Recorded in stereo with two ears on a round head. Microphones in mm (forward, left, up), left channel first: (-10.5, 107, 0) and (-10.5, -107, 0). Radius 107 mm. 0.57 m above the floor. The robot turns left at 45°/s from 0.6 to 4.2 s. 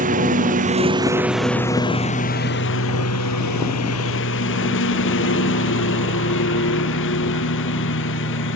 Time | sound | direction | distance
0.0 | a lawn mower | 145° right | ?